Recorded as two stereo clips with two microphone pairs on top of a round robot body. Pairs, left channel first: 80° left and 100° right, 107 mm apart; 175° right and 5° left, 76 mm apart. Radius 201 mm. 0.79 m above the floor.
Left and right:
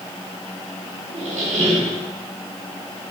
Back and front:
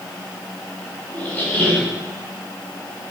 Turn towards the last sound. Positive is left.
turn(degrees=-105)